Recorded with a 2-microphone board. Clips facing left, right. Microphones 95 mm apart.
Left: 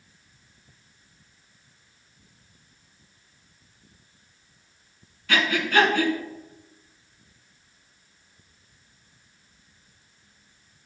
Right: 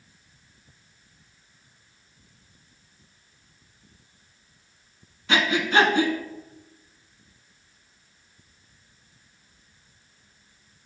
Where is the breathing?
25° right (ahead or behind), 0.9 m.